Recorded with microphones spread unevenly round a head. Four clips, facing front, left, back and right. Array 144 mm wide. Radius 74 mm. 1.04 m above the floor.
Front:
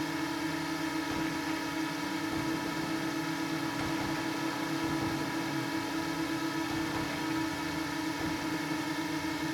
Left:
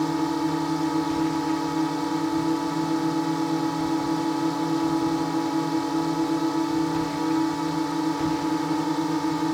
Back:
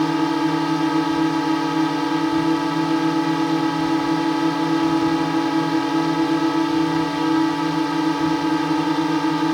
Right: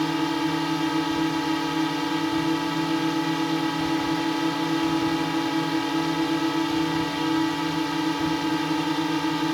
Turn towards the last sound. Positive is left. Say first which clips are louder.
# even, back 15 dB
turn(degrees=180)